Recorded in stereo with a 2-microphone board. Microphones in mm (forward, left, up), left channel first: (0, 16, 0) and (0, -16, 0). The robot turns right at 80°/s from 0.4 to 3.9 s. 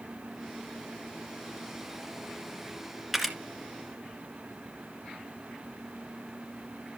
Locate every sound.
3.1 s a camera shutter: 5° right (ahead or behind), 2 m; by 3.4 s 10° left (ahead or behind), 2 m